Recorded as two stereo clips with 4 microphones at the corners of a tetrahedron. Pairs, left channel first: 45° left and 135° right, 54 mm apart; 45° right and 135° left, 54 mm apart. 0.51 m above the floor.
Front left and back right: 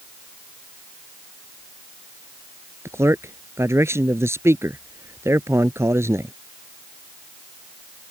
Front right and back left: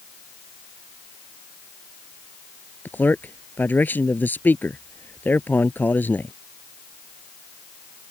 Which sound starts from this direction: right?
A man speaking, at 2.9 s.